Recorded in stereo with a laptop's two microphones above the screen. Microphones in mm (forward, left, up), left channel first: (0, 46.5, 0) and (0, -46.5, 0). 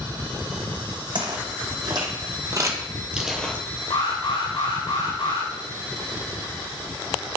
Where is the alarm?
80° left, 3.5 m.